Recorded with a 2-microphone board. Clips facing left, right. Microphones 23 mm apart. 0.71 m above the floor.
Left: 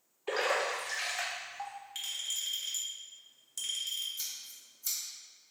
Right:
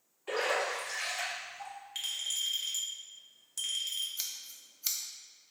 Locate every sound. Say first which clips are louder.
0.3 s a splash: left 1 dB; 40° left (ahead or behind), 1.3 m
1.9 s a clink: right 2 dB; 10° right (ahead or behind), 1.0 m
4.2 s scissors: right 1 dB; 50° right (ahead or behind), 0.7 m